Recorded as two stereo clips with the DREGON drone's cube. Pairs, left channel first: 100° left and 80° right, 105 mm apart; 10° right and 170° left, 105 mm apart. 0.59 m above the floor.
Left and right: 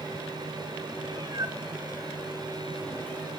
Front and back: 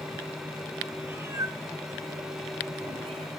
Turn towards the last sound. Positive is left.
turn(degrees=170)